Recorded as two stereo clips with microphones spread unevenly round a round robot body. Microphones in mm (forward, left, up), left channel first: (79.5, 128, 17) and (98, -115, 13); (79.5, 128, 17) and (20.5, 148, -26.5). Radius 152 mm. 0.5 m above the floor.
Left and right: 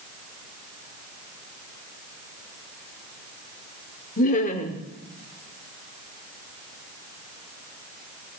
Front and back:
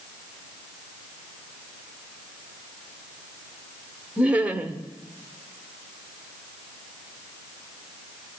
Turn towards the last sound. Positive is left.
turn(degrees=150)